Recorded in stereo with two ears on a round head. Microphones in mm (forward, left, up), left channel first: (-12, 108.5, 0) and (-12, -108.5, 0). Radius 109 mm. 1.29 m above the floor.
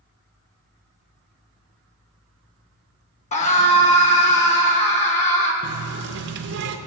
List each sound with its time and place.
3.3 s a scream: 30° left (ahead or behind), 1.1 m
5.6 s a running tap: 50° right (ahead or behind), 0.5 m